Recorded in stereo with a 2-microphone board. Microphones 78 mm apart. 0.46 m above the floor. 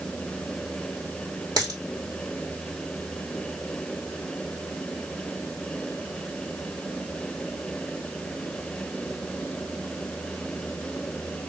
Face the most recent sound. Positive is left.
turn(degrees=-55)  # may be behind; listen again after turning